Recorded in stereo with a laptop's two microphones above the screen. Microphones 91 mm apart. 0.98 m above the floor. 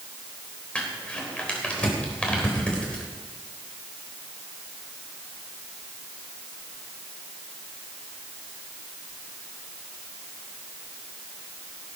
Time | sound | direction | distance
0.8 | crumpling | 15° left (ahead or behind) | 3.5 m